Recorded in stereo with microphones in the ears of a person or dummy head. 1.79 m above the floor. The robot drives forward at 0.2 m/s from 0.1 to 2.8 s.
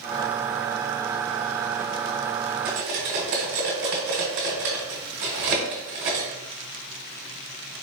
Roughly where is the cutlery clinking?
Right.